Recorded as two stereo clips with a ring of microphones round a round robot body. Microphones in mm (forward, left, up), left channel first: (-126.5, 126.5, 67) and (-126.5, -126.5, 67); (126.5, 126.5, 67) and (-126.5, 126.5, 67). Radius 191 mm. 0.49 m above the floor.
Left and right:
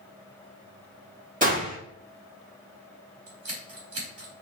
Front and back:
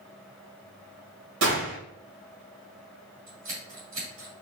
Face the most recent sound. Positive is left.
turn(degrees=-115)